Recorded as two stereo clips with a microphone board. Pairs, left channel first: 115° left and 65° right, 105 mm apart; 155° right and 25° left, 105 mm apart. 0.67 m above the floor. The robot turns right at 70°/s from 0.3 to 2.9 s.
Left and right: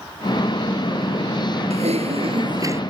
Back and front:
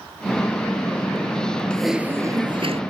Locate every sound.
1.7 s typing on a keyboard: 80° right; by 2.8 s straight ahead